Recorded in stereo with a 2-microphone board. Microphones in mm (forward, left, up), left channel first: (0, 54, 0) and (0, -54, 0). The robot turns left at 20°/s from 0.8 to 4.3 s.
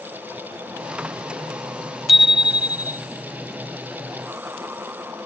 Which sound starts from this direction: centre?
A bicycle bell, at 2.1 s.